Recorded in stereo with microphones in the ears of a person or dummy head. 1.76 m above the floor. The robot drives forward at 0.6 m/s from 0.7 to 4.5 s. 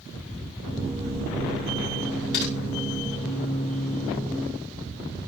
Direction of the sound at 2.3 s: 60° left (ahead or behind).